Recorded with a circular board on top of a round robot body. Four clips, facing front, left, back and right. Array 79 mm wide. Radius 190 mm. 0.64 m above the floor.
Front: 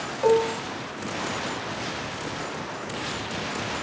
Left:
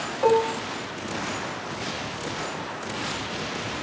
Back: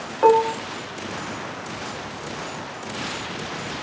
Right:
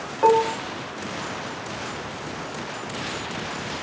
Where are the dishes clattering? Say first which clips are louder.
Right 3 dB, back 5 dB; 155° right, 1.1 m.